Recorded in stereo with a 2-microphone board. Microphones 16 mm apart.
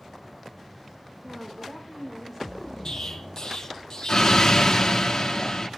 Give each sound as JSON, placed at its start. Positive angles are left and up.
{"t": 1.2, "sound": "a woman speaking", "side_deg": -10, "distance_m": 4.0}
{"t": 2.9, "sound": "an explosion", "side_deg": 50, "distance_m": 1.7}